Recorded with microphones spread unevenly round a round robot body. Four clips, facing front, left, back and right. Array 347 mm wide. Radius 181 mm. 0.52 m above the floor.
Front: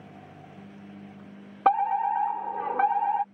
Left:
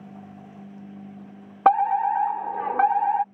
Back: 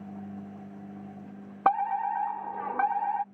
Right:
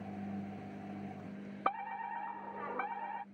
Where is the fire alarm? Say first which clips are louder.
Left 19 dB, front 3 dB; 75° left.